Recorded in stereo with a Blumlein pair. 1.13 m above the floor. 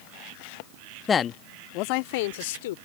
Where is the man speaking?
20° left; by 2.8 s 55° left.